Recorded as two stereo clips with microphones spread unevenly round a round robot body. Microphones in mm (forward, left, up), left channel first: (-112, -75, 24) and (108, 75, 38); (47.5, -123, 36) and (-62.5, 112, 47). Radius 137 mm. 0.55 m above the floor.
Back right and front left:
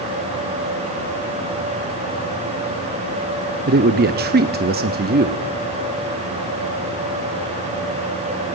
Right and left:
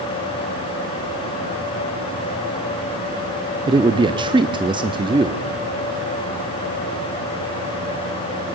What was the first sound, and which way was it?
A man speaking, 55° left.